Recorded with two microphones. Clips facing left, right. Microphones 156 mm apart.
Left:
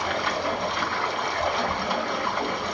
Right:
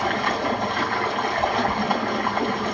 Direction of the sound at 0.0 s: 60° right (ahead or behind).